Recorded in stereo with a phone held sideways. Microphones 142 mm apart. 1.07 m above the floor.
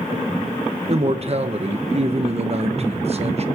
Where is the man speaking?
45° right (ahead or behind), 1.1 m.